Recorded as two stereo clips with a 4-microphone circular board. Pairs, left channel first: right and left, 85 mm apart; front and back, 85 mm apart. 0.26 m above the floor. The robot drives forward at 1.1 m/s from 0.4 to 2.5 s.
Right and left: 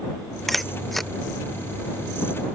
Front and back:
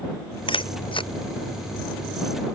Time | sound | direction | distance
0.5 | a camera shutter | straight ahead | ?